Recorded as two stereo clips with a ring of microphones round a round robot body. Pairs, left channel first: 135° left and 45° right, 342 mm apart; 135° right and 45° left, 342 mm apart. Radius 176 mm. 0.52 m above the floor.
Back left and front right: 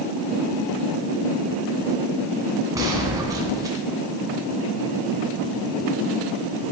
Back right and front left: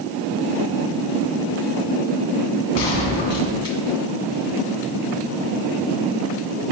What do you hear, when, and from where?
2.8 s a gunshot: 125° right, 2.5 m